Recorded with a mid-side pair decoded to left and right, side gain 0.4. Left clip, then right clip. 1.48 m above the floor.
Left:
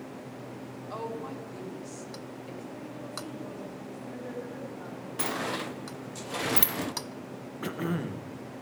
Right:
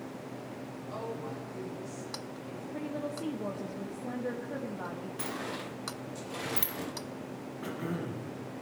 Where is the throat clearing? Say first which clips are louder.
Left 4 dB; 55° left, 1.3 m.